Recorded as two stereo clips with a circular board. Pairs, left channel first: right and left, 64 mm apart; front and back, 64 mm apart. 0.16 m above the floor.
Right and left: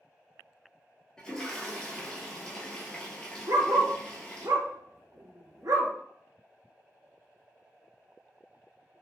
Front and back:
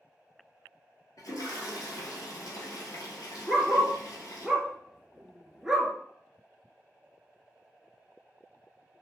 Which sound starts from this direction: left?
A dog barking, at 3.5 s.